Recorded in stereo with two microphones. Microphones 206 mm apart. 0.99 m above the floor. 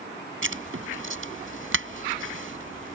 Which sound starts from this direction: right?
Writing, at 0.4 s.